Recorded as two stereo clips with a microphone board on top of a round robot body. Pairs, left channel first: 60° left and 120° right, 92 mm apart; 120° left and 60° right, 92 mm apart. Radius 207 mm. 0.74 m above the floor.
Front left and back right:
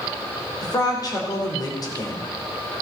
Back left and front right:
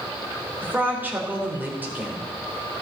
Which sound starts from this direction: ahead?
A woman speaking, at 0.6 s.